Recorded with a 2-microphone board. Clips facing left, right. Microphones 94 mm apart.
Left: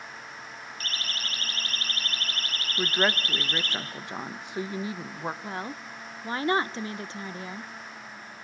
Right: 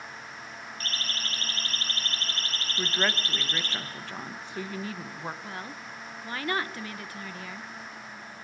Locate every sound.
0.8 s a siren: 35° right (ahead or behind), 7 m; by 3.8 s 20° right (ahead or behind), 5 m
2.8 s a woman speaking: 20° left (ahead or behind), 1.3 m
5.4 s a woman speaking: 25° left (ahead or behind), 0.9 m